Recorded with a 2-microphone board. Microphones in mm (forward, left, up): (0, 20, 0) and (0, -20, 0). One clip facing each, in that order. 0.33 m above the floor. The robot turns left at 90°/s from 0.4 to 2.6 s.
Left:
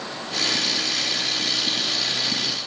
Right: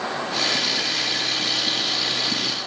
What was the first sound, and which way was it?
Only background noise.